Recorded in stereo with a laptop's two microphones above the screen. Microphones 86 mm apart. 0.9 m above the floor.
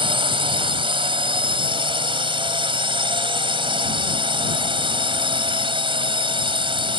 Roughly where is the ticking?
I don't hear ticking.